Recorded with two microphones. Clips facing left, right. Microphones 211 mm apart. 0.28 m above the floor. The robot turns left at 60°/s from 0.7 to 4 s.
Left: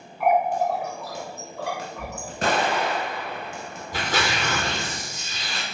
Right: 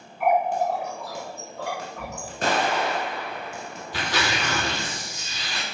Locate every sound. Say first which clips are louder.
0.2 s a running tap: left 1 dB; 50° right (ahead or behind), 1.3 m; by 2.3 s 20° right (ahead or behind), 1.3 m
2.4 s an explosion: left 1 dB; 95° left, 1.5 m; by 4.1 s straight ahead, 1.5 m
3.9 s tearing paper: left 1 dB; 40° left (ahead or behind), 1.5 m; by 5.7 s 45° left (ahead or behind), 1.5 m